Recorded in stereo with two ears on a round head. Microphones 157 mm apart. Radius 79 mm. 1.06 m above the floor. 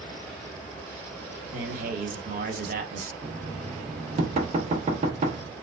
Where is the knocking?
35° right (ahead or behind), 0.6 m.